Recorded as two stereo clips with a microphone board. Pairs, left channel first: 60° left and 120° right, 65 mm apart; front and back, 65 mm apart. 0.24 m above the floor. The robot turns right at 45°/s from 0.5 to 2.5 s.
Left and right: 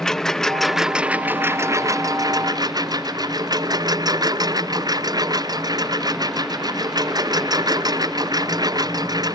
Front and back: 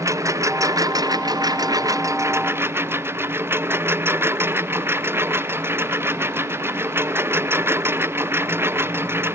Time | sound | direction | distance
0.0 | a lawn mower | 140° left | ?